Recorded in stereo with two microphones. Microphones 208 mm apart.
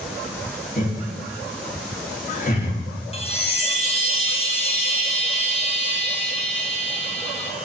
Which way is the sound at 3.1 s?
30° left (ahead or behind).